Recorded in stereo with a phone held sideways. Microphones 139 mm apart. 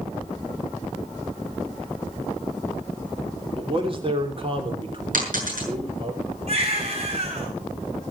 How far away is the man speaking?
About 3 m.